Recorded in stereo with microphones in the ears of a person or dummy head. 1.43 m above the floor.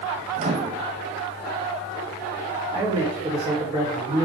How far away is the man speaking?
About 4 m.